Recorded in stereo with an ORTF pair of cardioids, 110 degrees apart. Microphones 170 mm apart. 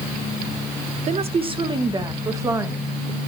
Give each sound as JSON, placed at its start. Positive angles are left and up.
{"t": 1.1, "sound": "a woman speaking", "azimuth_deg": -40, "distance_m": 1.1}